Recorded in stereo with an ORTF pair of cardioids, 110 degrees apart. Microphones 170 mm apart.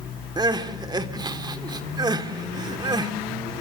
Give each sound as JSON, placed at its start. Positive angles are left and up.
{"t": 0.4, "sound": "crying", "azimuth_deg": -25, "distance_m": 2.0}